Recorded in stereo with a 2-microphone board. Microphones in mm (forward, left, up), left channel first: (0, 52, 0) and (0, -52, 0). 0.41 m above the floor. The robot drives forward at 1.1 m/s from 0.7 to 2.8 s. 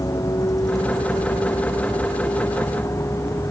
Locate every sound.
0.0 s a vehicle: 35° left (ahead or behind); by 3.5 s 30° left (ahead or behind)